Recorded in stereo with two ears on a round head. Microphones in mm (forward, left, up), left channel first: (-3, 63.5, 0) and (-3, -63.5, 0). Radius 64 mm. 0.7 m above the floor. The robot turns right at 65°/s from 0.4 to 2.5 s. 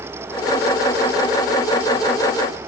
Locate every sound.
Only background noise.